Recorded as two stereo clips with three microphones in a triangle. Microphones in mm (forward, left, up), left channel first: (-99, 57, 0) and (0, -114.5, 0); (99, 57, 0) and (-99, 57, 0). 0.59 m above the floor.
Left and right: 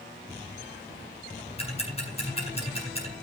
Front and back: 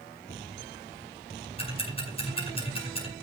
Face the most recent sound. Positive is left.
turn(degrees=60)